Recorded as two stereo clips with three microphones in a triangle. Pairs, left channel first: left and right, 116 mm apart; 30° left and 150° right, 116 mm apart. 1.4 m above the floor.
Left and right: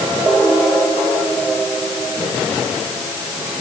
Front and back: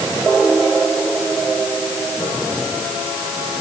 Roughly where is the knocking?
I don't hear knocking.